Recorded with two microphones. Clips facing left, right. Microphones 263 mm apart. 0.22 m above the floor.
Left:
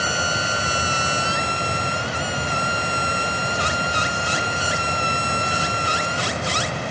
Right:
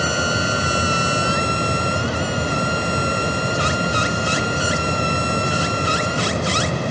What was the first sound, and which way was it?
Only background noise.